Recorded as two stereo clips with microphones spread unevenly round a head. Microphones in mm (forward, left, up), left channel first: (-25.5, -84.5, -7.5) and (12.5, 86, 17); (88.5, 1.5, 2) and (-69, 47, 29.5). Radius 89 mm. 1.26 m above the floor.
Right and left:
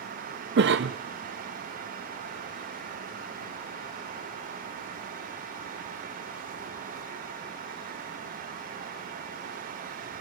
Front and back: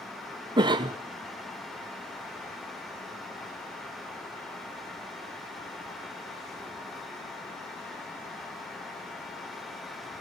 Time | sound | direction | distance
0.6 | a cough | 95° left | 0.6 m